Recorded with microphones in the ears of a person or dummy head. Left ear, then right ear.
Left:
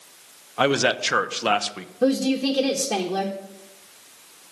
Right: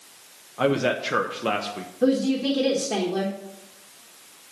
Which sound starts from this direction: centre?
A woman speaking, at 2.0 s.